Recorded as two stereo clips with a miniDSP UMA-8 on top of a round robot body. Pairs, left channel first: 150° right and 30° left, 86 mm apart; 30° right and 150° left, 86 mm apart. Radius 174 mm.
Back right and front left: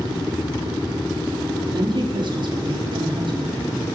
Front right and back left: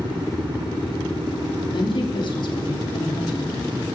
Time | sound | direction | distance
1.7 | a woman speaking | straight ahead | 3 m